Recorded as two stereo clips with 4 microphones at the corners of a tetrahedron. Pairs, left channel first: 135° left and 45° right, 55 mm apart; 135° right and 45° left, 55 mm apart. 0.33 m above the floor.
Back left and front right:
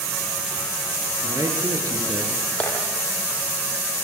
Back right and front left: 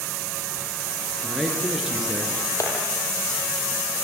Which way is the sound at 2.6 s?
160° right.